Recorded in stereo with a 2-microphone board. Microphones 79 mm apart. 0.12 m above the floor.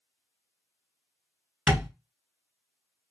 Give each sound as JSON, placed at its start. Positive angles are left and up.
{"t": 1.7, "sound": "tapping", "side_deg": -15, "distance_m": 1.3}